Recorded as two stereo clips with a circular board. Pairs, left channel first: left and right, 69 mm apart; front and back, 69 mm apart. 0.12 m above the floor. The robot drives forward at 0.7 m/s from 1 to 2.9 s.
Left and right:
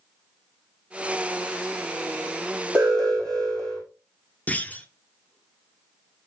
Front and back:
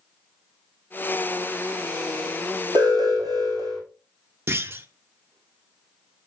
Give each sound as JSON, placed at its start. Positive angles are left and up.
{"t": 2.8, "sound": "an alarm", "azimuth_deg": 170, "distance_m": 3.5}
{"t": 4.5, "sound": "a clunk", "azimuth_deg": 145, "distance_m": 0.6}